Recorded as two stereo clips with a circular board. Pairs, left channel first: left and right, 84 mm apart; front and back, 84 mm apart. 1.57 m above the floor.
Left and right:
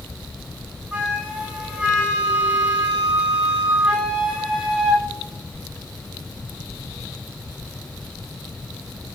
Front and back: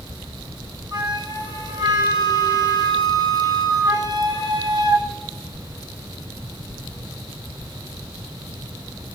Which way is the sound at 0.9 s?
165° right.